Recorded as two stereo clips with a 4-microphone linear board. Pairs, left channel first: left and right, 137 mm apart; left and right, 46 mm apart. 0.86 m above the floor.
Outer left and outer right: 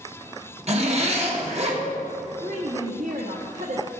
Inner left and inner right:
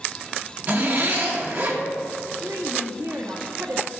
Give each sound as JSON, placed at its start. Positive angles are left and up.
{"t": 0.7, "sound": "a zipper", "side_deg": -45, "distance_m": 1.3}
{"t": 2.4, "sound": "a woman speaking", "side_deg": -70, "distance_m": 1.1}